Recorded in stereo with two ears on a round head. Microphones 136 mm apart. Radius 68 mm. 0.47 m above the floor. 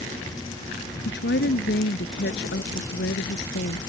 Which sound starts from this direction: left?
A woman speaking, at 1.1 s.